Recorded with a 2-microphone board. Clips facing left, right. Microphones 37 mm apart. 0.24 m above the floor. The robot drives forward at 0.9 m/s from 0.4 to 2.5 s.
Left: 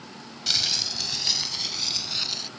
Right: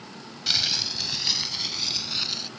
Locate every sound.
0.5 s crumpling: 10° right (ahead or behind); by 2.5 s 5° right (ahead or behind)